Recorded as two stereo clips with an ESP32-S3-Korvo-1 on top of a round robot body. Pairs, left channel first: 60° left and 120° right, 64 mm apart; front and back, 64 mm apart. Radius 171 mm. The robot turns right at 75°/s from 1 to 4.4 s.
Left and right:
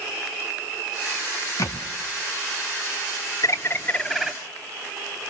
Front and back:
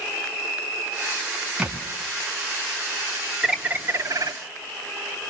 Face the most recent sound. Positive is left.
turn(degrees=165)